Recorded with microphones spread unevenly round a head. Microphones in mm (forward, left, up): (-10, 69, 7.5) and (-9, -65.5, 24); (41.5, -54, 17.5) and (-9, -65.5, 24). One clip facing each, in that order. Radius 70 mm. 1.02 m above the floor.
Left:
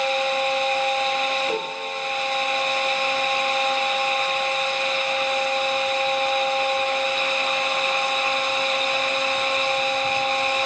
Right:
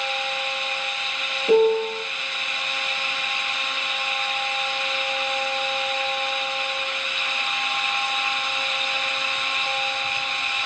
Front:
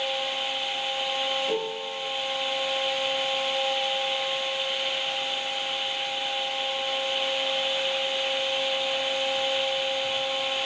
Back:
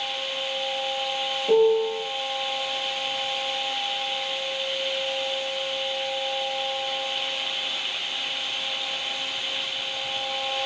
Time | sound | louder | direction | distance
1.5 | a piano | right 10 dB, back 10 dB | 95° right | 0.9 m